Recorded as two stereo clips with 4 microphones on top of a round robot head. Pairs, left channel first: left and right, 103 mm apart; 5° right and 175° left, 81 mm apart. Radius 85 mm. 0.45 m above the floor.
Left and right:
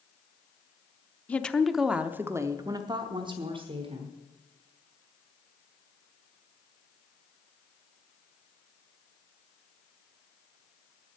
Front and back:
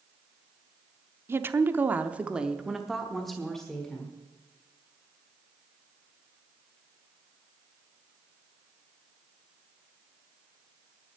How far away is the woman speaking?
About 0.8 m.